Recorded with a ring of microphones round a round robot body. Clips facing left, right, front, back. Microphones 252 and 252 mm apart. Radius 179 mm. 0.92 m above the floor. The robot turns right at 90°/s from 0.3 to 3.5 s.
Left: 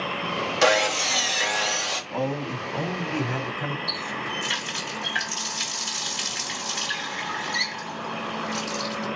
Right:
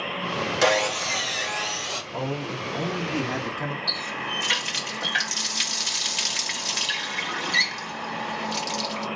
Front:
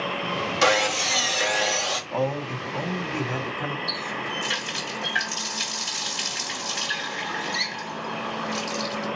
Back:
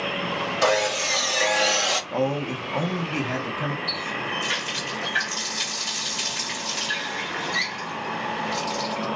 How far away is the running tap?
About 1.2 m.